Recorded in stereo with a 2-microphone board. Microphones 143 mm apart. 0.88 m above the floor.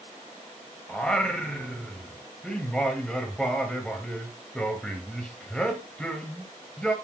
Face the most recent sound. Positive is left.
turn(degrees=5)  # may be behind; listen again after turning